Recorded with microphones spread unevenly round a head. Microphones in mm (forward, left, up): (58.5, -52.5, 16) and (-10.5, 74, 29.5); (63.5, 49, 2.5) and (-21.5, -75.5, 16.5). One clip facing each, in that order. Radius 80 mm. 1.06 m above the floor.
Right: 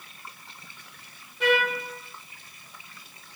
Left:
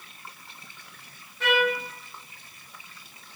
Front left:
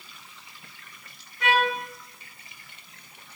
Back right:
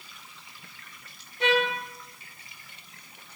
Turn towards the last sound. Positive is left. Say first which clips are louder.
# even, front left 1 dB
turn(degrees=-130)